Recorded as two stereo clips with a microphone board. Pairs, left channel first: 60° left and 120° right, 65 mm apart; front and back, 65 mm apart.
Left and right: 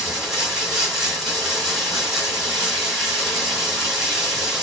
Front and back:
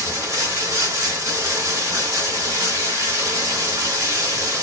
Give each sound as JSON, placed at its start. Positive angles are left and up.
{"t": 0.0, "sound": "running water", "azimuth_deg": 155, "distance_m": 1.3}